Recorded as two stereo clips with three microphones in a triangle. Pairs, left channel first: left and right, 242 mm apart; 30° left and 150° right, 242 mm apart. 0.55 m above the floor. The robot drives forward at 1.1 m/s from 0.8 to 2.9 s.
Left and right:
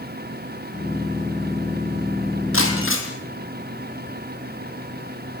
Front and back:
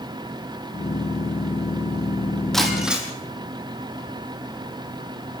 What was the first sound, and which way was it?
Breaking glass, 120° left.